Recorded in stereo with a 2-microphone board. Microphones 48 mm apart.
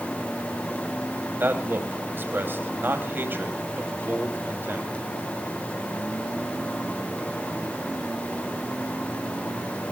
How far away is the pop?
I don't hear a pop.